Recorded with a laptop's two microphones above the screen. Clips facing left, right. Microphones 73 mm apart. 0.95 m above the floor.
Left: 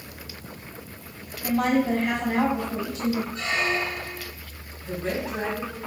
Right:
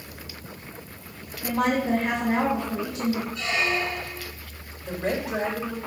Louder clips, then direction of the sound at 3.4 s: Even; 45° left (ahead or behind).